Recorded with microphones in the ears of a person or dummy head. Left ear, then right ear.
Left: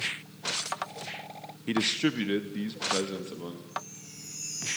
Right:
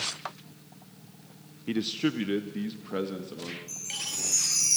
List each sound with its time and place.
1.7 s a man speaking: 20° left (ahead or behind), 0.7 m; by 3.6 s 10° left (ahead or behind), 2.5 m
3.7 s a chime: 70° right (ahead or behind), 5.5 m